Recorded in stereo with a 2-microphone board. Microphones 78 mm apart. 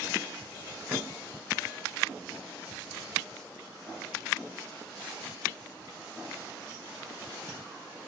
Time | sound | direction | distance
0.9 | a snare drum | 15° right (ahead or behind) | 3 m